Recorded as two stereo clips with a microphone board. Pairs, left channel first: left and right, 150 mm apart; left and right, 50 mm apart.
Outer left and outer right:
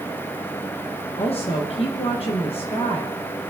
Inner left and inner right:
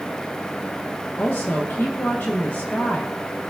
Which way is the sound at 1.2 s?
45° left (ahead or behind).